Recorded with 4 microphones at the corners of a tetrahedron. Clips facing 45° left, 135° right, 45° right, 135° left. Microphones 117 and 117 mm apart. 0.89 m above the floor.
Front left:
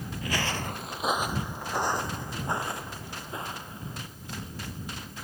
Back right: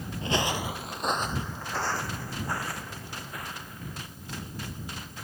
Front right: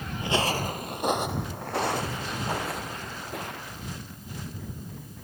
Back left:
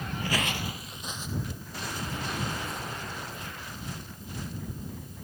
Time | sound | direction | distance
0.2 | footsteps | 105° right | ?